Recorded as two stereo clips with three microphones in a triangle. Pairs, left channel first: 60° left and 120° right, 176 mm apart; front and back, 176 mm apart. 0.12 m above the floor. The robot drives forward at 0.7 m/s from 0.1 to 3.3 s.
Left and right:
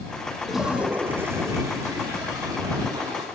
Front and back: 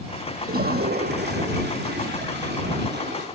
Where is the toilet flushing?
150° left, 0.7 m; by 3.3 s 175° left, 2.5 m.